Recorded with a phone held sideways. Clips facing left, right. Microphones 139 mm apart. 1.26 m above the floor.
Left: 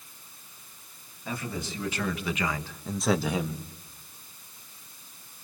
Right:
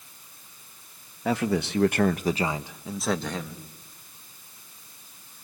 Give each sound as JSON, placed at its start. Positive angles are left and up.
{"t": 1.2, "sound": "a man speaking", "side_deg": -85, "distance_m": 1.4}